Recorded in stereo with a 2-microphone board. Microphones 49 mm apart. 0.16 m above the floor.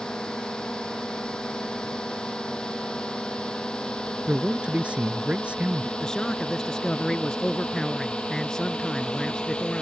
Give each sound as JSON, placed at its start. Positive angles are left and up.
{"t": 0.0, "sound": "a drone", "side_deg": 15}
{"t": 4.3, "sound": "a man speaking", "side_deg": -25}
{"t": 6.0, "sound": "a man speaking", "side_deg": 15}